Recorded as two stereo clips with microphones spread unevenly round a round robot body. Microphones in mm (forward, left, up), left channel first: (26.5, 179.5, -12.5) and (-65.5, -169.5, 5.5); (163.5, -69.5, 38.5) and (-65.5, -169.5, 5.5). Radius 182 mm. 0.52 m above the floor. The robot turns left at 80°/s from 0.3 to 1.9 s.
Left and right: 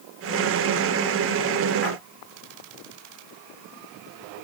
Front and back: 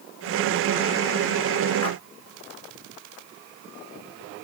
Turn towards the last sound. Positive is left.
turn(degrees=-50)